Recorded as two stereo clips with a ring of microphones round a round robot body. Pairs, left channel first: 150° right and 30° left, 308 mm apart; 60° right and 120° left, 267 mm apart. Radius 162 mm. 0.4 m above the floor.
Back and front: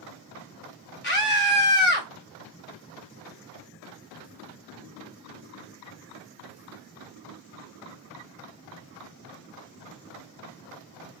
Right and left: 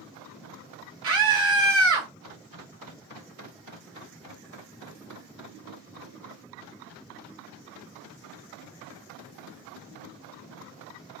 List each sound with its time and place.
1.0 s a scream: 155° left, 1.8 m